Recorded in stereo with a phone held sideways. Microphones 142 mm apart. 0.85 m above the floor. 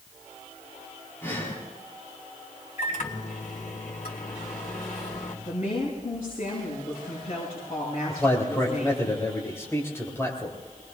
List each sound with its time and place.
1.2 s breathing: 15° left (ahead or behind), 5.5 m
2.8 s a microwave: 70° left (ahead or behind), 3 m
5.5 s a woman speaking: 45° left (ahead or behind), 7 m
8.1 s a man speaking: 20° left (ahead or behind), 4 m